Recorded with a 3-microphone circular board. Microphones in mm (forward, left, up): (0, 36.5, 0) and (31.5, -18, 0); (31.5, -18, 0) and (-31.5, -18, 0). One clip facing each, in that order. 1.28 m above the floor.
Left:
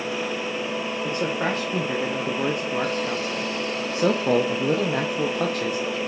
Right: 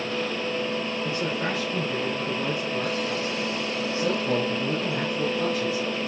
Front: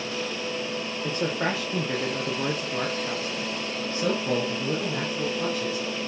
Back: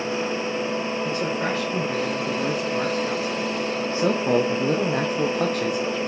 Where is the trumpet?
I don't hear a trumpet.